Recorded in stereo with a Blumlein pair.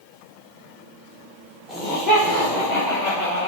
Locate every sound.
1.7 s laughter: 5° left, 0.9 m; by 3.5 s 35° left, 1.5 m